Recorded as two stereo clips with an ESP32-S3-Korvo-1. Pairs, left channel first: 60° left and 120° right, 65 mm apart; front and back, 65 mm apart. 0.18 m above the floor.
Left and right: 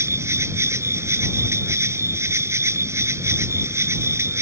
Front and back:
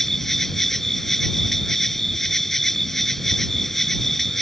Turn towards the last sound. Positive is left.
turn(degrees=-85)